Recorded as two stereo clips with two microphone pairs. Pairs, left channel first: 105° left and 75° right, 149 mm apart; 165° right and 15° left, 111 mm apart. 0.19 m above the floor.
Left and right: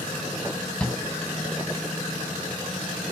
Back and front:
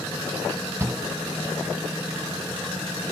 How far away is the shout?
About 1.3 m.